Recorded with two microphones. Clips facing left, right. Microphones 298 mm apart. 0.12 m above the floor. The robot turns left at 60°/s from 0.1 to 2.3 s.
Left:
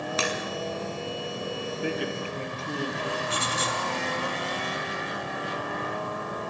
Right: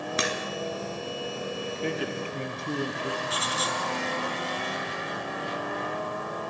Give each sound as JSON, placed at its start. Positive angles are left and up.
{"t": 0.2, "sound": "a crack", "side_deg": -20, "distance_m": 2.5}
{"t": 1.8, "sound": "a man speaking", "side_deg": 10, "distance_m": 2.5}
{"t": 3.3, "sound": "writing", "side_deg": 30, "distance_m": 2.5}